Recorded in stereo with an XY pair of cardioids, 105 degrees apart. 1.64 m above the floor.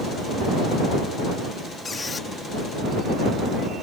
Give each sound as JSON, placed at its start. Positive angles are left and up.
{"t": 1.9, "sound": "a squeak", "azimuth_deg": 30}